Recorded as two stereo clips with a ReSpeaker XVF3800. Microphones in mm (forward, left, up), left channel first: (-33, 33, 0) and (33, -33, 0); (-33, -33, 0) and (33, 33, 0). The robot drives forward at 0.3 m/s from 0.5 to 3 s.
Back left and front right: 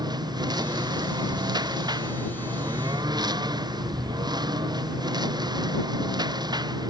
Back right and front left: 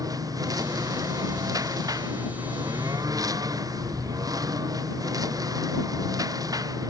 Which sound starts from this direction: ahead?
A lawn mower, at 0.0 s.